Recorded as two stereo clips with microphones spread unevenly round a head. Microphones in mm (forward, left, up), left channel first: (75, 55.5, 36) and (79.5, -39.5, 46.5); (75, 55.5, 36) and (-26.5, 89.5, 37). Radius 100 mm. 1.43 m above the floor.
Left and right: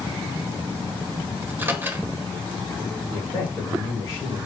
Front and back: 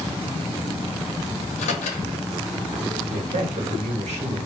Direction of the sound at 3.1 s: 165° left.